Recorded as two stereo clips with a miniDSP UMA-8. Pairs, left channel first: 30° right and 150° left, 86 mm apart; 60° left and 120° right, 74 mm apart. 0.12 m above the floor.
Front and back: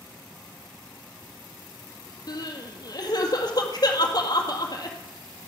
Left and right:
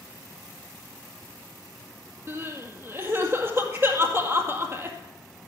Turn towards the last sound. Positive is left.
turn(degrees=-65)